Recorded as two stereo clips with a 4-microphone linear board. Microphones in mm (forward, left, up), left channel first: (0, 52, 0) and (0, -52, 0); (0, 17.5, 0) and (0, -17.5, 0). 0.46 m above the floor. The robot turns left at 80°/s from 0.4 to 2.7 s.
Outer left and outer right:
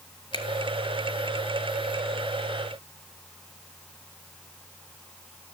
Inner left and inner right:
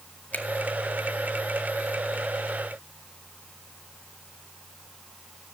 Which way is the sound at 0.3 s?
60° left (ahead or behind).